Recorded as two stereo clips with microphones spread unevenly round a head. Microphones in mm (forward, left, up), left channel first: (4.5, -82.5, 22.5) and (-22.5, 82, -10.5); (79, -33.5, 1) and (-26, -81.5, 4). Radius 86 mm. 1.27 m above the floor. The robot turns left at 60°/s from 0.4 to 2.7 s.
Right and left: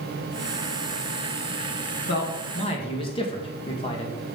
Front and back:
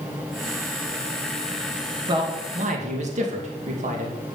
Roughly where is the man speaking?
Right.